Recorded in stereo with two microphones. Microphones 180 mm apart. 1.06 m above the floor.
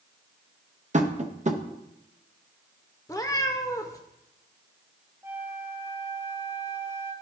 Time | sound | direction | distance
0.9 | tapping | 40° right (ahead or behind) | 0.7 m
3.1 | a cat meowing | 20° left (ahead or behind) | 0.7 m
5.2 | a flute | 10° right (ahead or behind) | 0.9 m